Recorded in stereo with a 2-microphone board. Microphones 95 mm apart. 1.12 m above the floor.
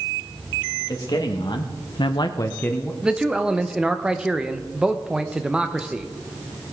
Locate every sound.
0.9 s a man speaking: 45° left (ahead or behind), 1.9 m; by 2.9 s 10° left (ahead or behind), 1.1 m
3.0 s a man speaking: 10° right (ahead or behind), 0.7 m